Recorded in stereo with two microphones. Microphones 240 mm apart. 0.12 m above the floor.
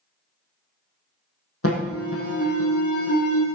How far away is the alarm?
About 3 m.